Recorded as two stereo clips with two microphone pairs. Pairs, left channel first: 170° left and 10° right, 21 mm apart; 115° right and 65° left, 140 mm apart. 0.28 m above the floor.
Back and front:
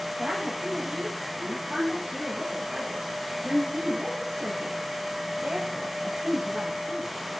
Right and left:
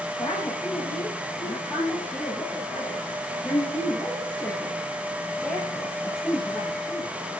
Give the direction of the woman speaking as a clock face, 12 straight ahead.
2 o'clock.